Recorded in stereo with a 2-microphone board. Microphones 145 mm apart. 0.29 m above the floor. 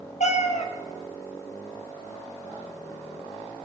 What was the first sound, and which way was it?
A cat meowing, 60° left (ahead or behind).